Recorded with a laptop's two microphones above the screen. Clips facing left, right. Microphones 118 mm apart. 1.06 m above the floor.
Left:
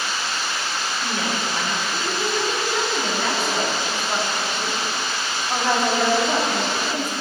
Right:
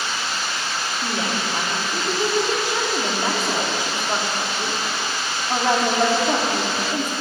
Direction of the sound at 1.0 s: 20° right (ahead or behind).